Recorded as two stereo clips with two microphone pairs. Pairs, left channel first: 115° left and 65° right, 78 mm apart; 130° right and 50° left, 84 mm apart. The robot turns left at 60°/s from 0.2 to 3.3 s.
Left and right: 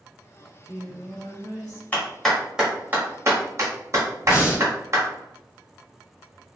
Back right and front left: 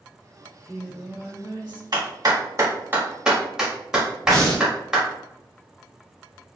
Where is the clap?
50° left, 1.3 m; by 5.1 s 30° right, 1.3 m.